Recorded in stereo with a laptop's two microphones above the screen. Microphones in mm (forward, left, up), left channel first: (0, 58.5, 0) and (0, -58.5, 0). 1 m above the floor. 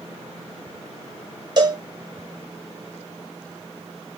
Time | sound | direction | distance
1.6 | a cowbell | 40° right (ahead or behind) | 0.6 m